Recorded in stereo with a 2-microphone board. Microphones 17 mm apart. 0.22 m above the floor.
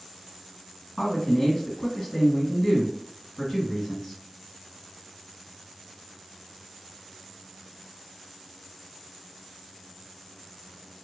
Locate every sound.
1.0 s a man speaking: 35° left (ahead or behind), 1.9 m